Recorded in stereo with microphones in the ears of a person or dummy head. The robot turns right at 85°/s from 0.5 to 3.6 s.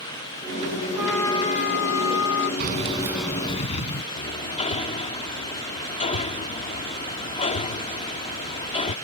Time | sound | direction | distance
1.0 | a trumpet | 5° right | ?
2.6 | keys jangling | 50° right | ?
4.2 | hammering | 30° left (ahead or behind) | ?